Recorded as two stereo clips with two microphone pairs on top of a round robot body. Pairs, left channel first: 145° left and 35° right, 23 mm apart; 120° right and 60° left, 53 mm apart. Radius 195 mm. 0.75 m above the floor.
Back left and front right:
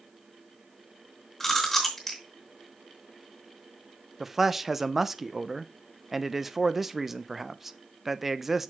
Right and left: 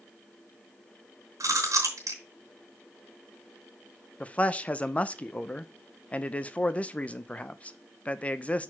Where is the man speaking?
90° right, 0.8 m.